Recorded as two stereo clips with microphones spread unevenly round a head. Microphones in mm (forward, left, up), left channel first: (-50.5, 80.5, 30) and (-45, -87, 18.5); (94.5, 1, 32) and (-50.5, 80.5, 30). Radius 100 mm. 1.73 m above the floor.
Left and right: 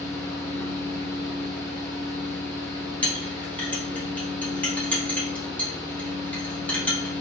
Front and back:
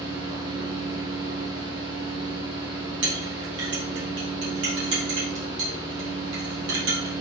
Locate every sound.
0.0 s a fan: 165° left, 1.8 m
3.0 s a clink: 170° left, 2 m